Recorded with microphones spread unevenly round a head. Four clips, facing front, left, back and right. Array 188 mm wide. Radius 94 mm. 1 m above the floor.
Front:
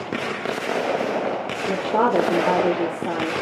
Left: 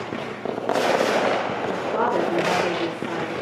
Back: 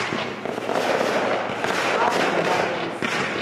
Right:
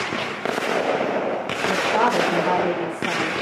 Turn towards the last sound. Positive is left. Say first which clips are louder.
# right 5 dB, front 3 dB
turn(degrees=0)